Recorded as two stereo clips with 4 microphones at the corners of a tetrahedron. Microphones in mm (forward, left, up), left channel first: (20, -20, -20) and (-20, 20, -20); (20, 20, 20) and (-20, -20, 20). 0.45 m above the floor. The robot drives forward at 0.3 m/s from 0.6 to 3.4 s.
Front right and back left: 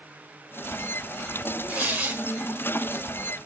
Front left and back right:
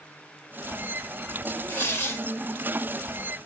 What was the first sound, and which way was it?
Tearing paper, 80° left.